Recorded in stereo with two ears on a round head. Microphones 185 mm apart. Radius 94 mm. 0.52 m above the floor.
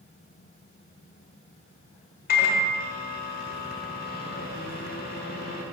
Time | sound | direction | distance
2.3 | a microwave | 45° left (ahead or behind) | 1.3 m